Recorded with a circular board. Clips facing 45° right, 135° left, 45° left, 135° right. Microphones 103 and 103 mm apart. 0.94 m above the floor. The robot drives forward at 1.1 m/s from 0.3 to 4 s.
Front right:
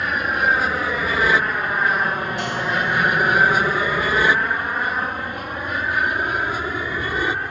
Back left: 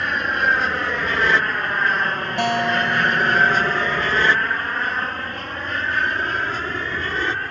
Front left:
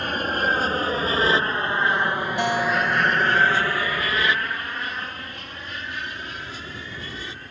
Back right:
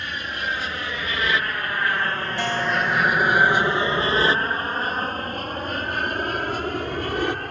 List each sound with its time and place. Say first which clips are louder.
0.0 s an aircraft: even, front left 6 dB; 40° left; by 7.5 s 125° right
2.4 s a guitar: back left 7 dB, front left 1 dB; 115° left; by 4.4 s 140° left